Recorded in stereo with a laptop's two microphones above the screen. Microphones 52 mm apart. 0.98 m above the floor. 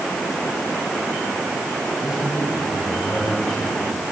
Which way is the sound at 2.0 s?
10° right (ahead or behind).